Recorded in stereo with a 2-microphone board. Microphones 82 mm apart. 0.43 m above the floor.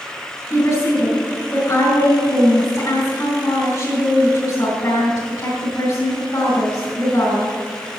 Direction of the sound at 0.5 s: 35° left (ahead or behind).